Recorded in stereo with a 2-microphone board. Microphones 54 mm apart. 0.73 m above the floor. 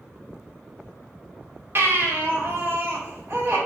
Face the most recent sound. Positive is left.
turn(degrees=-50)  # may be behind; listen again after turning